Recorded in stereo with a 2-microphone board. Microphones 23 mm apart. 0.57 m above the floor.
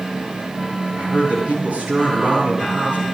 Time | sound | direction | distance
1.0 | a man speaking | 85° right | 9.5 m